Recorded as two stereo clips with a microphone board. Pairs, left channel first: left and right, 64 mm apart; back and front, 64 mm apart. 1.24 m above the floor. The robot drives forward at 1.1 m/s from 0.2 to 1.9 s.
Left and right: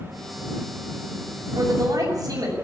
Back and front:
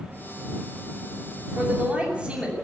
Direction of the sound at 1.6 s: 65° right.